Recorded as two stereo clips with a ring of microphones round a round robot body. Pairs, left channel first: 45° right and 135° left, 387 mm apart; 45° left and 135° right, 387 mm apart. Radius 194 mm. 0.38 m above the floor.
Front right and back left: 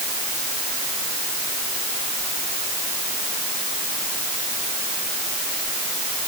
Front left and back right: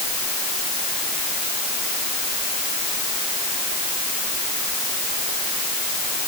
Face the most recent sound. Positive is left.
No sound to turn to.